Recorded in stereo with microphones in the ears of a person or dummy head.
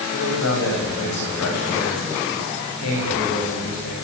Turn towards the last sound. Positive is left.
turn(degrees=65)  # may be behind; listen again after turning